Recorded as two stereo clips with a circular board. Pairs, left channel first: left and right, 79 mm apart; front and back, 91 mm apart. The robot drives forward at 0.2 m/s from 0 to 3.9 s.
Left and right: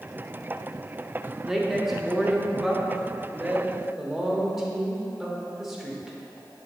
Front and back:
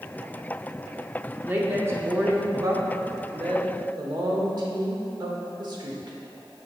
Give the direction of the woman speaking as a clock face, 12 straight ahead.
5 o'clock.